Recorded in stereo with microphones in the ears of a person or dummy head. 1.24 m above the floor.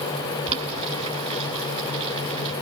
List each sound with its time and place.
0.5 s boiling: 30° right (ahead or behind), 7 m